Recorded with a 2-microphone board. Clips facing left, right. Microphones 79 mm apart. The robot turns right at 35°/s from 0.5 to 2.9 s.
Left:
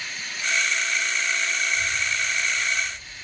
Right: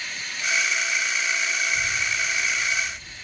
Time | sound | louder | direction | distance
1.7 | a child speaking | even | 110° right | 5 m